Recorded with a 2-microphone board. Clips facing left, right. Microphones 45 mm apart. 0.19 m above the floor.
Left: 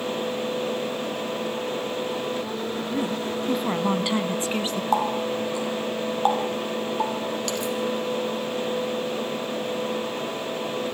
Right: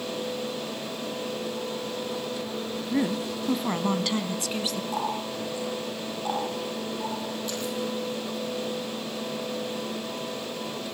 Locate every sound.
2.9 s a woman speaking: 30° right (ahead or behind), 1.2 m; by 4.8 s 35° left (ahead or behind), 1.8 m
4.9 s a running tap: 75° left (ahead or behind), 4 m